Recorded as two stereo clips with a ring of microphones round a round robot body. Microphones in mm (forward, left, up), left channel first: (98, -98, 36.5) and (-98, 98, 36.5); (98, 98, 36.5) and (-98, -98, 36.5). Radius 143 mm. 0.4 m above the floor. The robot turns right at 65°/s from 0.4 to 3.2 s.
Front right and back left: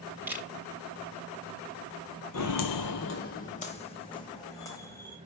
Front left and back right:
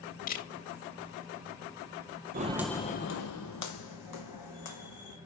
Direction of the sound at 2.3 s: 80° right.